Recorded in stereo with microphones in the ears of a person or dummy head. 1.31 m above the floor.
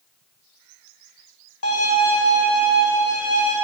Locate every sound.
1.6 s a violin: 75° left (ahead or behind), 1.5 m